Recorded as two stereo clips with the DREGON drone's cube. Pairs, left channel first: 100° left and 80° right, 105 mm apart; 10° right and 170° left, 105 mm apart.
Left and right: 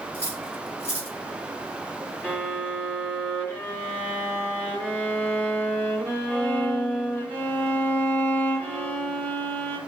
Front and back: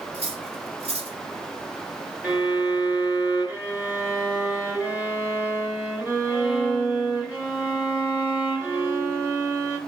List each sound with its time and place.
0.1 s cutlery clinking: 165° left, 1.5 m
2.2 s a violin: 140° left, 1.4 m